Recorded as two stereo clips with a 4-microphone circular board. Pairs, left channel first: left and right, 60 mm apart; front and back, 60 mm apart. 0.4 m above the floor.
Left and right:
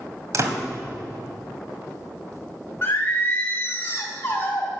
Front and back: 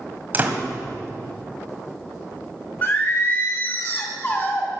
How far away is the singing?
About 2 m.